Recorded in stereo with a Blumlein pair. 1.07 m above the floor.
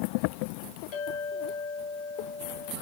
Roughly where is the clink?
Ahead left.